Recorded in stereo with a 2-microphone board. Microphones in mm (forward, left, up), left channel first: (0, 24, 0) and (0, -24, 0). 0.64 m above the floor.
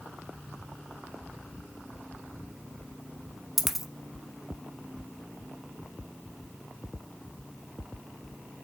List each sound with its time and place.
3.6 s a dropped coin: 5° right (ahead or behind), 0.6 m